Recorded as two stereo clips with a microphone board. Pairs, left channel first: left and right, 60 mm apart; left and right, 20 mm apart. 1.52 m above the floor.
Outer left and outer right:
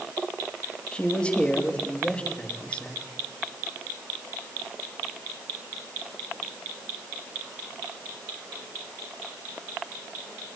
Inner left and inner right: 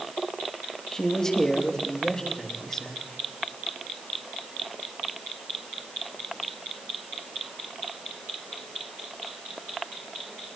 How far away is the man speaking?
About 3 m.